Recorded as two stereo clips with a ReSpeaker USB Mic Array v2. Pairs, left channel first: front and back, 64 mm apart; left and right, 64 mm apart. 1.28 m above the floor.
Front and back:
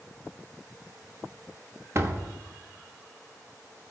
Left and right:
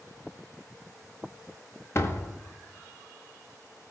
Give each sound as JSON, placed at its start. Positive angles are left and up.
{"t": 1.9, "sound": "a door slam", "azimuth_deg": 135, "distance_m": 1.1}